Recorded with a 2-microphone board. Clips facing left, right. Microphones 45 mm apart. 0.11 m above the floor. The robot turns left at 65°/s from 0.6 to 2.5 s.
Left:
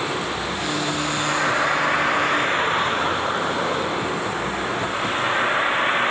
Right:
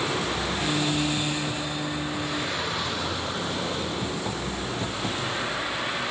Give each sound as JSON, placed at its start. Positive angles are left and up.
{"t": 0.0, "sound": "a vehicle", "azimuth_deg": 165}